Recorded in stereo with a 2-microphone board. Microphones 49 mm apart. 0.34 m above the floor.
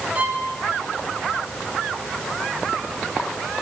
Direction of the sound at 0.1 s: 30° right (ahead or behind).